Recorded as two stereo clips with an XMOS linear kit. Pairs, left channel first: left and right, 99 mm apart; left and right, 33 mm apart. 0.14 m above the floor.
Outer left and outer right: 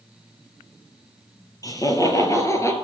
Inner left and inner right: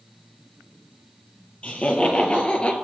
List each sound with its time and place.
1.6 s laughter: 35° left (ahead or behind), 2.5 m; by 2.7 s 30° left (ahead or behind), 2 m